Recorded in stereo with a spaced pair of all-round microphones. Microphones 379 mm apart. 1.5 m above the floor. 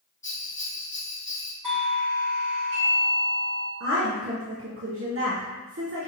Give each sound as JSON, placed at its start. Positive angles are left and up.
{"t": 0.2, "sound": "a bell", "side_deg": 30, "distance_m": 0.7}
{"t": 1.6, "sound": "a doorbell", "side_deg": -55, "distance_m": 1.7}
{"t": 3.8, "sound": "a woman speaking", "side_deg": -35, "distance_m": 0.6}